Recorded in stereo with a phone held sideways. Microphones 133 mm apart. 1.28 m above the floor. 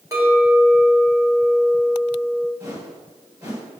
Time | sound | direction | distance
0.1 | a clink | 25° right (ahead or behind) | 4 m
2.6 | a whoosh | 30° right (ahead or behind) | 4.5 m